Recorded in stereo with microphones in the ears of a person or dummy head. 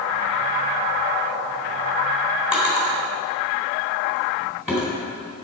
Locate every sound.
2.5 s a drawer: centre (ahead or behind), 3.5 m